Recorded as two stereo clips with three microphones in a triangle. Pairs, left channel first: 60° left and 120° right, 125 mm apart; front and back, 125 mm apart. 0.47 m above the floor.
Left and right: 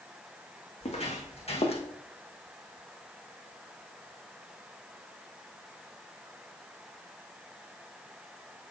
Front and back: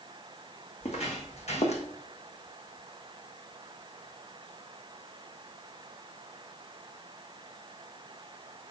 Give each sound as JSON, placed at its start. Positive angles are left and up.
{"t": 0.8, "sound": "footsteps", "azimuth_deg": 30, "distance_m": 2.0}